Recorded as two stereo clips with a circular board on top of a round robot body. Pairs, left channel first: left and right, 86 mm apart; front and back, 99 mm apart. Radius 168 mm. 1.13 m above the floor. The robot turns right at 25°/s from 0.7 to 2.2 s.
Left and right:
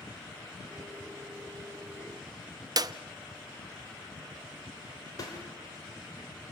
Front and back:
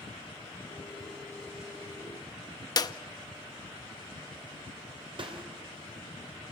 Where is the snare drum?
140° left, 2.5 m.